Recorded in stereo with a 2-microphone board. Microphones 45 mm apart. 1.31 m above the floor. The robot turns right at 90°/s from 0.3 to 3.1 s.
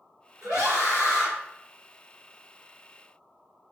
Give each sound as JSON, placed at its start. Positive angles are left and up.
{"t": 0.4, "sound": "a scream", "azimuth_deg": -75, "distance_m": 1.4}